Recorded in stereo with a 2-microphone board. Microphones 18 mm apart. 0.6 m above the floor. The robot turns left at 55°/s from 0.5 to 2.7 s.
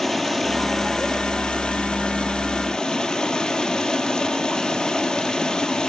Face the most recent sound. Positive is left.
turn(degrees=40)